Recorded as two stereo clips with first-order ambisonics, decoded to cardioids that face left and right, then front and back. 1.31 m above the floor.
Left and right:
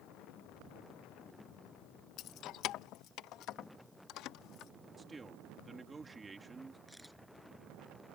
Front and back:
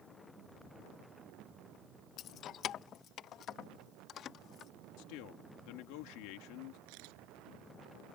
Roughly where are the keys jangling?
Ahead left.